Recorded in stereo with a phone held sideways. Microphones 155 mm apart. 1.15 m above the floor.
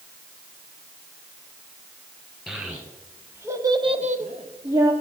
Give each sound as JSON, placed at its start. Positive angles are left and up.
{"t": 2.5, "sound": "a child speaking", "side_deg": -10, "distance_m": 3.0}